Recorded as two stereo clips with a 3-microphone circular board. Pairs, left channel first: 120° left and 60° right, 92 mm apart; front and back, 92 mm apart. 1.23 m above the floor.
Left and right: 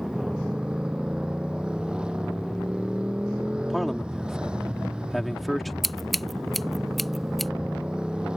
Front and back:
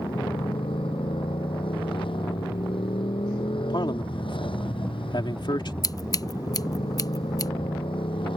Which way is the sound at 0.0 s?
20° left.